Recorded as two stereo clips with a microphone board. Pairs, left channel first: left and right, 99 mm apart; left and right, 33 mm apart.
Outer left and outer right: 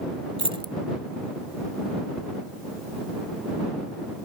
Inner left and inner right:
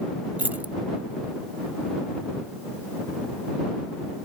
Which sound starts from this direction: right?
Keys jangling, at 0.4 s.